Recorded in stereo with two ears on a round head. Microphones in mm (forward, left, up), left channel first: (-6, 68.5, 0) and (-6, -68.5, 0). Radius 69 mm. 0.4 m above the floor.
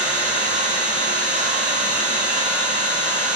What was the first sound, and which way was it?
An engine running, 45° right (ahead or behind).